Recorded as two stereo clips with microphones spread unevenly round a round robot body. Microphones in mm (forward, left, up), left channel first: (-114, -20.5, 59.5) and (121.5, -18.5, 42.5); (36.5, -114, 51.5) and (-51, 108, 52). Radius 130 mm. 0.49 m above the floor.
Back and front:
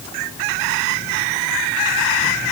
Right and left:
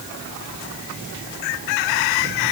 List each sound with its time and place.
Only background noise.